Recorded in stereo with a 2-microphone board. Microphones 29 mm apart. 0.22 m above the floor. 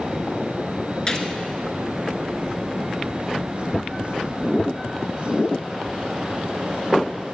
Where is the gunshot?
35° left (ahead or behind), 1.5 m.